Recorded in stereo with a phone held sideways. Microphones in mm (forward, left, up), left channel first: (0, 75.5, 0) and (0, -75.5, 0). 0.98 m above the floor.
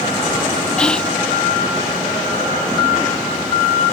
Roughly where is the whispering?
Centre.